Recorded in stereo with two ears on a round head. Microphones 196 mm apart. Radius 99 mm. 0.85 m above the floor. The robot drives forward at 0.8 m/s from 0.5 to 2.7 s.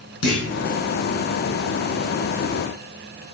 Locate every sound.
0.2 s a clunk: 75° left (ahead or behind), 4.5 m